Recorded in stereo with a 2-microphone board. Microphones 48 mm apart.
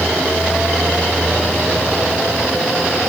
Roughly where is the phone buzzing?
I don't hear a phone buzzing.